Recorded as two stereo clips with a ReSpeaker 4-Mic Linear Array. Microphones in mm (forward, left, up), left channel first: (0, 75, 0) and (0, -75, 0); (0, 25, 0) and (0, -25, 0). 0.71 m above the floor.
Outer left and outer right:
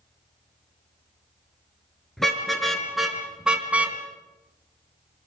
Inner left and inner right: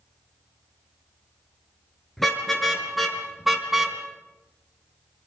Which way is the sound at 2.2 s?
Centre (ahead or behind).